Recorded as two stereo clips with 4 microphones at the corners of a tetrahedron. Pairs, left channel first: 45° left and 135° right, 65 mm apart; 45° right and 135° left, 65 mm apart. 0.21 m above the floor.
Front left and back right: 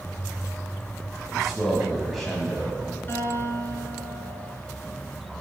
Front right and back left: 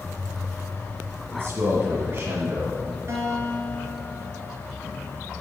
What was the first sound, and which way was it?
A man speaking, 130° left.